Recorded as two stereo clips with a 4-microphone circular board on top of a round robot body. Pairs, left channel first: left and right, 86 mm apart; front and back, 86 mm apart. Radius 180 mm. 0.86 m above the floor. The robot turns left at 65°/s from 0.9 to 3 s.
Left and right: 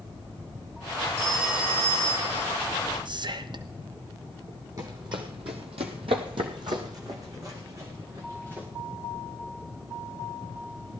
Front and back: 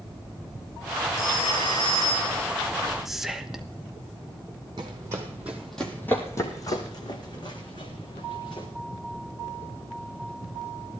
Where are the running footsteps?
140° right, 1.6 m; by 8.7 s 25° right, 3.5 m.